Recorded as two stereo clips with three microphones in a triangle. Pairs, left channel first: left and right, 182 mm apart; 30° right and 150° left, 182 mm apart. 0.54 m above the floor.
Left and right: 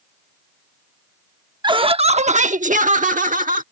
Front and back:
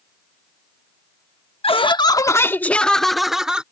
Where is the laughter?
50° right; by 3.6 s 125° right.